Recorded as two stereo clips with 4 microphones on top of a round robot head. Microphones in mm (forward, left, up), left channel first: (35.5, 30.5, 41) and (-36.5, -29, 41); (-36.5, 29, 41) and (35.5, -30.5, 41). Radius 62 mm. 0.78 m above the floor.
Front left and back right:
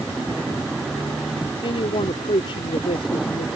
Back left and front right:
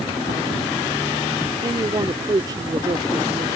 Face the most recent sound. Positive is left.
turn(degrees=5)